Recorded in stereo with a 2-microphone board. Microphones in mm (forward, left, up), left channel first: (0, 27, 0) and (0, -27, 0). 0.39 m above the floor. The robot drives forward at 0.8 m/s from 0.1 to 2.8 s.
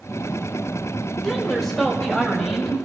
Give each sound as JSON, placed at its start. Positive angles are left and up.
{"t": 1.2, "sound": "a woman speaking", "side_deg": 0, "distance_m": 1.9}